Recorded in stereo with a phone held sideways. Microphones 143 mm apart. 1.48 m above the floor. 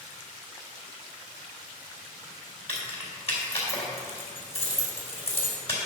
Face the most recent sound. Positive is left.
turn(degrees=45)  # may be behind; listen again after turning